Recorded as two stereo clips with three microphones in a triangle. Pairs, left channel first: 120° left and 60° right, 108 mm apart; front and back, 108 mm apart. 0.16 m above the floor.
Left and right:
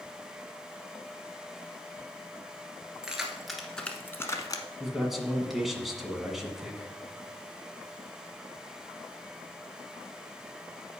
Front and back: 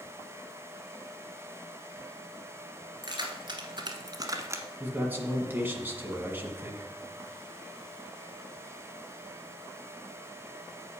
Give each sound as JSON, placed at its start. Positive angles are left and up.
{"t": 3.0, "sound": "keys jangling", "azimuth_deg": -140, "distance_m": 1.9}
{"t": 4.8, "sound": "a man speaking", "azimuth_deg": -145, "distance_m": 1.6}